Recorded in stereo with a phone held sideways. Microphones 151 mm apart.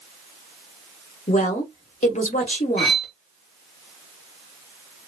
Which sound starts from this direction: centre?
Cutlery clinking, at 2.8 s.